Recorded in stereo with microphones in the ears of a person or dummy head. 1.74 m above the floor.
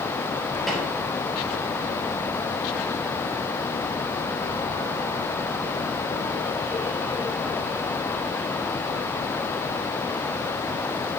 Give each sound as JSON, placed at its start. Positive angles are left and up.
{"t": 0.7, "sound": "a snare drum", "side_deg": 0, "distance_m": 1.3}